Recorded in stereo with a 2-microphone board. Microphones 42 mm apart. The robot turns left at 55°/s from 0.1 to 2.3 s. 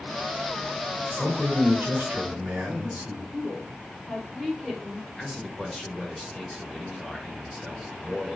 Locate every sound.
1.1 s a man speaking: 20° right, 2.0 m; by 3.2 s 85° right, 2.0 m
3.3 s a woman speaking: 5° right (ahead or behind), 1.1 m
5.2 s a man speaking: centre (ahead or behind), 1.2 m